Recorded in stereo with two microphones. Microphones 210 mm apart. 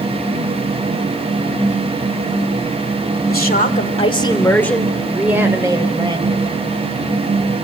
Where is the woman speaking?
50° left (ahead or behind), 2.5 m; by 6.5 s 25° right (ahead or behind), 4 m.